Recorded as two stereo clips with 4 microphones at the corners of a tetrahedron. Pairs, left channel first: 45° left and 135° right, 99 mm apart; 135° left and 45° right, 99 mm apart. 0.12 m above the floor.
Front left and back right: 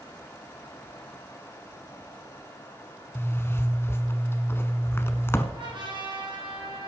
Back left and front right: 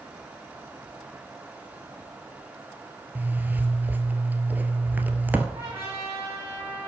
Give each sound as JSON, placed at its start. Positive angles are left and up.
{"t": 3.1, "sound": "a zipper", "azimuth_deg": 5, "distance_m": 1.1}
{"t": 5.5, "sound": "a trumpet", "azimuth_deg": -110, "distance_m": 6.5}